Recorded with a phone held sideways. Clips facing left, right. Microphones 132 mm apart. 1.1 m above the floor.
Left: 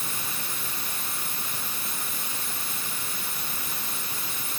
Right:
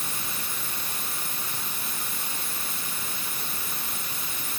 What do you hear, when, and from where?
Only background noise.